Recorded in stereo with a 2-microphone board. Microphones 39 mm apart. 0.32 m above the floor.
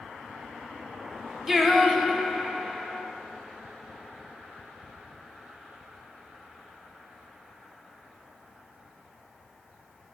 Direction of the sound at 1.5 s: 10° right (ahead or behind).